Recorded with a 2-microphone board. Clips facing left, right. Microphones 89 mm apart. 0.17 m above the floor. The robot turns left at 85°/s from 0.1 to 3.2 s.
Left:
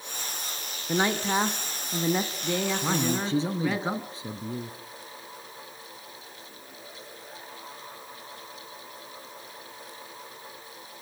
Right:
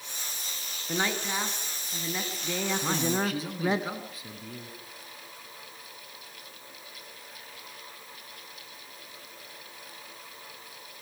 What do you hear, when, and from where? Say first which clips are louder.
0.9 s a man speaking: left 5 dB; 160° left, 1.3 m; by 3.8 s 40° right, 1.3 m
2.8 s a man speaking: left 1 dB; 175° left, 1.4 m; by 4.8 s 140° left, 1.4 m